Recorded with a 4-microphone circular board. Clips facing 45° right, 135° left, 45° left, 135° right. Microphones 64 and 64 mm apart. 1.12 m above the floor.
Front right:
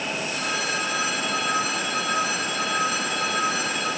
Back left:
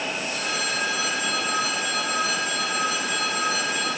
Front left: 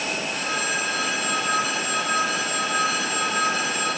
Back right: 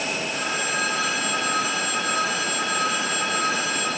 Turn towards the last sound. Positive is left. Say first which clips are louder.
# front right 2 dB, even
turn(degrees=-95)